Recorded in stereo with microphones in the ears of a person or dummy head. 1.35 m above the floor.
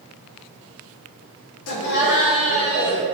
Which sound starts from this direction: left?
Laughter, at 1.7 s.